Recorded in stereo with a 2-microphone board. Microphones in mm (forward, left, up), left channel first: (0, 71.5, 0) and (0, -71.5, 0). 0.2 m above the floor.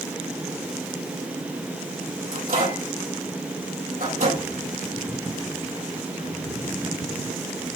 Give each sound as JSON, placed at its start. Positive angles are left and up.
{"t": 2.3, "sound": "a microwave", "side_deg": -70, "distance_m": 5.5}